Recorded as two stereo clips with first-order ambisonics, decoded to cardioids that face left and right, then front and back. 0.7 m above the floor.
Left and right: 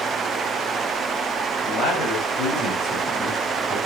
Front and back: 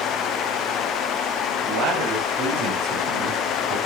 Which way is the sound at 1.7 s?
140° left.